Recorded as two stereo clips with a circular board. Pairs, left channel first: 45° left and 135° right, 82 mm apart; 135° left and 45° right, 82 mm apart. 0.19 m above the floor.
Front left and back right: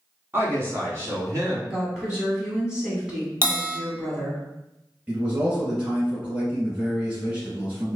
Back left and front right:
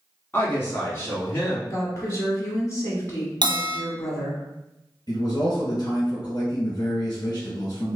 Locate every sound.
0.3 s a woman speaking: 175° right, 1.5 m; by 1.6 s 170° right, 2 m
1.7 s a woman speaking: 150° left, 1.1 m
3.4 s a bell: 70° right, 0.8 m
5.1 s a man speaking: 155° left, 1.7 m